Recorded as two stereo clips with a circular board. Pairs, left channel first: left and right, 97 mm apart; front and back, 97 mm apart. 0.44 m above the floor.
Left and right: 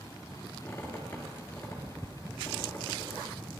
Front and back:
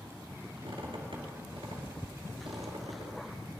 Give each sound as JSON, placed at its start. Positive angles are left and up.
{"t": 0.6, "sound": "a squeak", "azimuth_deg": 160, "distance_m": 2.5}